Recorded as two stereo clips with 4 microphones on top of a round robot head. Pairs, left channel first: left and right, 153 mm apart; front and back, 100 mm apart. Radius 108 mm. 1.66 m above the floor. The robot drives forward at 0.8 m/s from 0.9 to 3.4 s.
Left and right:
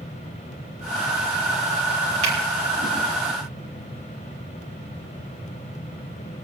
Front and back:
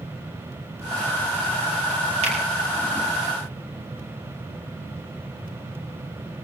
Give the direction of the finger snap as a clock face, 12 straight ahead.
5 o'clock.